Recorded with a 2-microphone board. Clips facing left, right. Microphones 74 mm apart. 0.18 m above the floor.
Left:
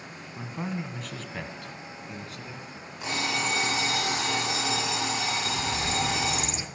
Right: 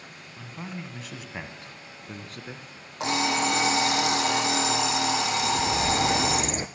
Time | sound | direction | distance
0.4 | a man speaking | 20° left (ahead or behind) | 1.4 m
3.0 | an alarm clock | 70° right (ahead or behind) | 4.5 m
5.4 | a bird | 50° right (ahead or behind) | 0.9 m